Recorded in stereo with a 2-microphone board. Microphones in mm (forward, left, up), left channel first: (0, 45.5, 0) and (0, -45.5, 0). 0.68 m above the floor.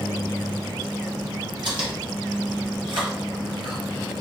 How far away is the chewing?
About 1.6 m.